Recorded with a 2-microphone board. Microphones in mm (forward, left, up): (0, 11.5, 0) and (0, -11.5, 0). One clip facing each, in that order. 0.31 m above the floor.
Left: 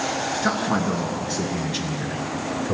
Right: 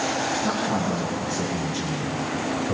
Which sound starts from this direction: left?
A man speaking, at 0.4 s.